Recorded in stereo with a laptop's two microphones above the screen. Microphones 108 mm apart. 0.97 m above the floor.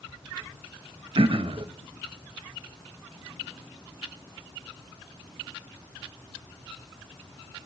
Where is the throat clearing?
55° right (ahead or behind), 0.5 m.